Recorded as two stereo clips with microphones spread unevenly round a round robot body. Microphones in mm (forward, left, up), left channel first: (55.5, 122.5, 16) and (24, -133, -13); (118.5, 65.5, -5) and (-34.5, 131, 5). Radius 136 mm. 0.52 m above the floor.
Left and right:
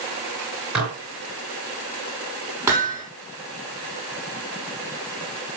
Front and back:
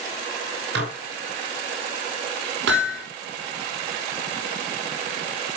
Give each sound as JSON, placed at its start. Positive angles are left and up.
{"t": 0.8, "sound": "dishes clattering", "azimuth_deg": 175, "distance_m": 5.0}
{"t": 2.7, "sound": "hammering", "azimuth_deg": 180, "distance_m": 5.0}